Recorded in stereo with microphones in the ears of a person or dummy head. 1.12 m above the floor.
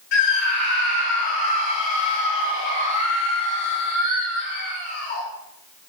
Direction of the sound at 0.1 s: 60° left (ahead or behind).